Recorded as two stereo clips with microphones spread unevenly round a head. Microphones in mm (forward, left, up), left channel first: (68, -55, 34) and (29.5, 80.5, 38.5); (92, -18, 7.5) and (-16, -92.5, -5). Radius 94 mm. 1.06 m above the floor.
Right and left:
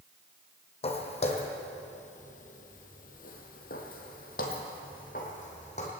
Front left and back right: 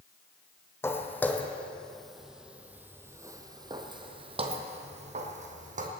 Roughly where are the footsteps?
Ahead right.